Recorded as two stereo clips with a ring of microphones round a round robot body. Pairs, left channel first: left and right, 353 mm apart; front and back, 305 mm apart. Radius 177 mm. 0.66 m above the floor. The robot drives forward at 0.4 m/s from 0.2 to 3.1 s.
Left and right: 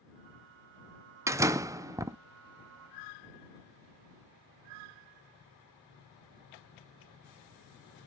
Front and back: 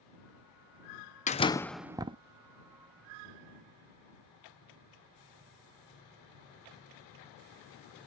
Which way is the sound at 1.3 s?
20° right.